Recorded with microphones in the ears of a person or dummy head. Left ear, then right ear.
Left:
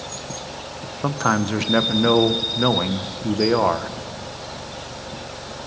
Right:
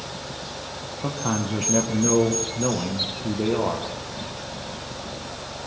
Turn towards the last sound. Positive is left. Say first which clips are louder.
# left 7 dB
turn(degrees=60)  # may be behind; listen again after turning